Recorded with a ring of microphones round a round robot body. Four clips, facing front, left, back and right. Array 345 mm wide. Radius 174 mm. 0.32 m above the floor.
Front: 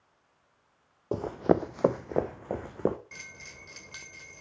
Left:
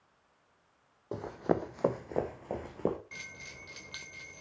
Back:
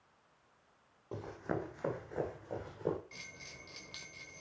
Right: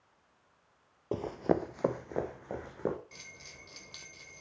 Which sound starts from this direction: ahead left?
A bell, at 3.1 s.